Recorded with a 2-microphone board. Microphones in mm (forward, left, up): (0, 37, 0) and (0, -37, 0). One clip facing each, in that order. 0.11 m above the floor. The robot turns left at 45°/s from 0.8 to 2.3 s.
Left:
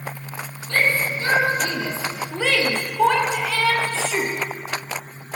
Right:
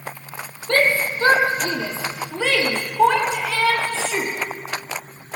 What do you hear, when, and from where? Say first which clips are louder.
0.7 s a shout: right 2 dB; 65° right (ahead or behind), 3 m; by 4.3 s 10° right (ahead or behind), 3 m